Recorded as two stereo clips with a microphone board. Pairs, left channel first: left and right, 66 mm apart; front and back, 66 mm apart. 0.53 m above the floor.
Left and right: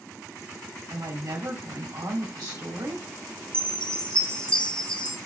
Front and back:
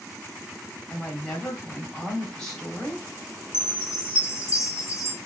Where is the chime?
25° left, 1.7 m.